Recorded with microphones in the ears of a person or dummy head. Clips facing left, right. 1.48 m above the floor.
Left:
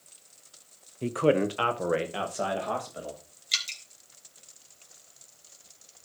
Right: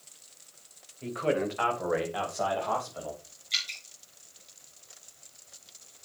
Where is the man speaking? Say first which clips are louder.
Left 5 dB; 60° left (ahead or behind), 0.9 m; by 3.2 s 25° left (ahead or behind), 3 m.